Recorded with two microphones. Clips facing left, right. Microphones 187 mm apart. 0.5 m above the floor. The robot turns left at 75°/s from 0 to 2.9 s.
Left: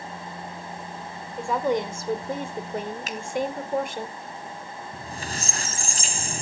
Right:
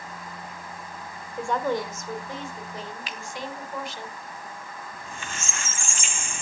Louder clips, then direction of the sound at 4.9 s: Left 6 dB; 40° left (ahead or behind).